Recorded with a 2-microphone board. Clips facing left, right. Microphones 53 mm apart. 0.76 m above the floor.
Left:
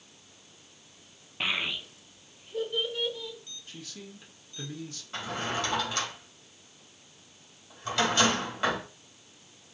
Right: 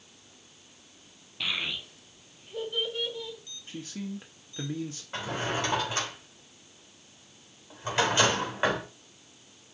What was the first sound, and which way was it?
A child speaking, 35° left (ahead or behind).